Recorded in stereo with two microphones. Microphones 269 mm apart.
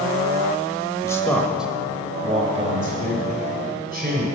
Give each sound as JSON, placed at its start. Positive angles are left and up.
{"t": 1.0, "sound": "a man speaking", "side_deg": 10, "distance_m": 1.1}